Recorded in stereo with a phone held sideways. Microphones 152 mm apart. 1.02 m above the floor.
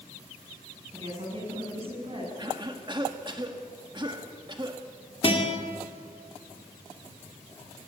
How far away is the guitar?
About 2.5 m.